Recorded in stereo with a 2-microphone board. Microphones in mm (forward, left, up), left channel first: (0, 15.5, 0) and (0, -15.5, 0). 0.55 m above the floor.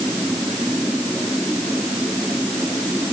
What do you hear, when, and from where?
Only background noise.